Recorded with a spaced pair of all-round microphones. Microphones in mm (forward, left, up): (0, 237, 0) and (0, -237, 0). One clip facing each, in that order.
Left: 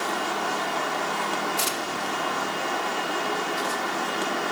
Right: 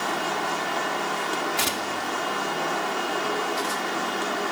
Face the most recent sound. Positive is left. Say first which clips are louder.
# right 1 dB
turn(degrees=-75)  # may be behind; listen again after turning